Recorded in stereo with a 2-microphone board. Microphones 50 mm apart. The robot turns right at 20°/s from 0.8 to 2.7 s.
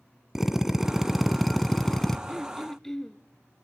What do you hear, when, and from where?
0.3 s a drill: 10° right (ahead or behind), 1.1 m; by 2.2 s 10° left (ahead or behind), 1.1 m
2.3 s throat clearing: centre (ahead or behind), 0.8 m; by 3.2 s 5° left (ahead or behind), 0.8 m